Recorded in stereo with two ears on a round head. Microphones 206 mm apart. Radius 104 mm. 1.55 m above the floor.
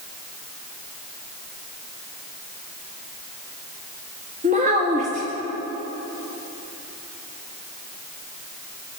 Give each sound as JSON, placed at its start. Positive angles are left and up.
{"t": 4.4, "sound": "a child speaking", "side_deg": -30, "distance_m": 1.6}